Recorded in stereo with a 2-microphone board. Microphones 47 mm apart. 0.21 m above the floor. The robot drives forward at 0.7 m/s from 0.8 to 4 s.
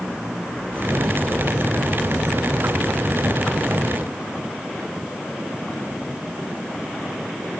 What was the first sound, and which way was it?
Only background noise.